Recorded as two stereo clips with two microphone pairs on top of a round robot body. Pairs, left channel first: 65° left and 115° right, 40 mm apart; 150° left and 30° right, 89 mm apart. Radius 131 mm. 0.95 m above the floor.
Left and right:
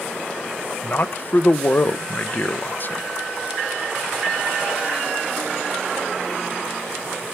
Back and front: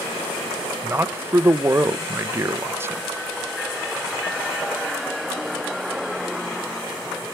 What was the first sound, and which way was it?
A man speaking, 25° left.